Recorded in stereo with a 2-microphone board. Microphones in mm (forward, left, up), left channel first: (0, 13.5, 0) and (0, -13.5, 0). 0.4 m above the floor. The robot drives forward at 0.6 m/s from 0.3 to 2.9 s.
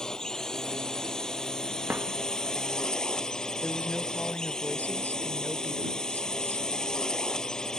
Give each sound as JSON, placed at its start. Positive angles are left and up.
{"t": 0.0, "sound": "a drone", "side_deg": 25}
{"t": 1.9, "sound": "a drawer", "side_deg": -85}
{"t": 3.6, "sound": "a woman speaking", "side_deg": 70}